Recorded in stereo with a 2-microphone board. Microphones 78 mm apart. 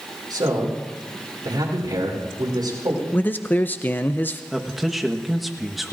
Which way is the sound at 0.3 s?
70° right (ahead or behind).